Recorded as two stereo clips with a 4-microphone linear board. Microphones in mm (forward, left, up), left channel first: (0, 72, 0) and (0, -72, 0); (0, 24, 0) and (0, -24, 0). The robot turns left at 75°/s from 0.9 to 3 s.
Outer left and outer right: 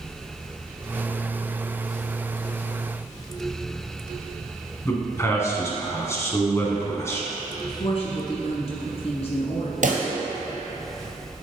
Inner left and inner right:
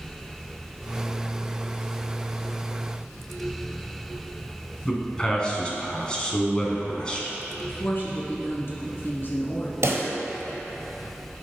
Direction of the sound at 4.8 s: 20° left (ahead or behind).